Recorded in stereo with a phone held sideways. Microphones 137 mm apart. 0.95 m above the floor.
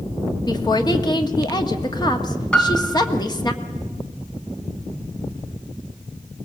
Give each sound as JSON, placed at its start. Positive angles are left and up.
{"t": 0.5, "sound": "a woman speaking", "side_deg": 30, "distance_m": 1.7}
{"t": 2.5, "sound": "a piano", "side_deg": 10, "distance_m": 0.9}